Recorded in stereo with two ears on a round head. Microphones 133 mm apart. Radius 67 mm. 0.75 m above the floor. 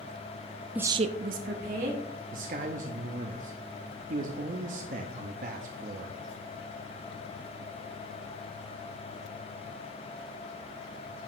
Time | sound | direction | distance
0.8 | a woman speaking | 10° right (ahead or behind) | 0.6 m
2.3 | a man speaking | 55° right (ahead or behind) | 0.8 m